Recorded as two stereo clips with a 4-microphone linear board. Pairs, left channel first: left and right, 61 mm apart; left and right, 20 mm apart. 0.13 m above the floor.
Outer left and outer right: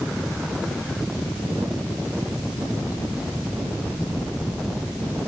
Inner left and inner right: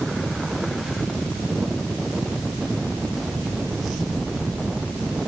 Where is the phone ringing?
No phone ringing in this recording.